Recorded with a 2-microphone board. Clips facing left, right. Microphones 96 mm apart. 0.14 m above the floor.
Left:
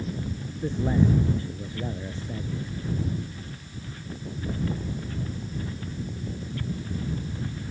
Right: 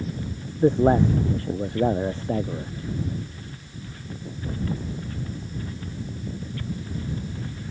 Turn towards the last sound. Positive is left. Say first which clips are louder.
# right 7 dB
turn(degrees=-60)  # may be behind; listen again after turning